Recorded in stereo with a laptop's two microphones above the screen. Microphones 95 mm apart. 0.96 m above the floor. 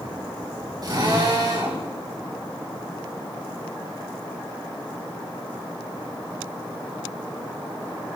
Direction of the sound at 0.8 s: 50° right (ahead or behind).